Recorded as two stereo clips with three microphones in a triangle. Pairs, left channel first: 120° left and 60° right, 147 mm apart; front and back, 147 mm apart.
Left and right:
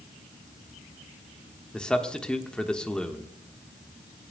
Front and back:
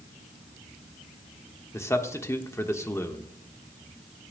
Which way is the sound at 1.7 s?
45° left.